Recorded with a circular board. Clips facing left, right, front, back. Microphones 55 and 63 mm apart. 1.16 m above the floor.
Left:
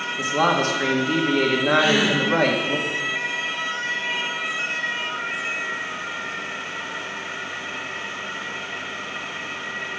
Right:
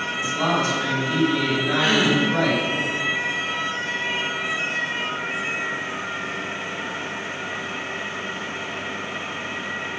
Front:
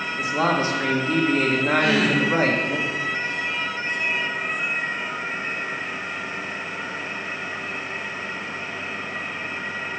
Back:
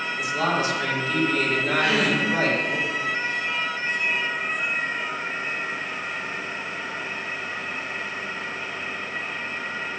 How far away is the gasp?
About 4 m.